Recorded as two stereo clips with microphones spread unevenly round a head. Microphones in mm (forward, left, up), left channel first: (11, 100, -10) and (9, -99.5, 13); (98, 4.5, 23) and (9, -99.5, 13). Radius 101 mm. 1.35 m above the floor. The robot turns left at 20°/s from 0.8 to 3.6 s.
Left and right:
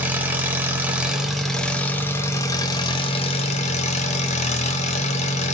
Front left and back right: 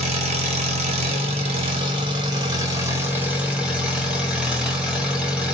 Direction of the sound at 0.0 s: 160° right.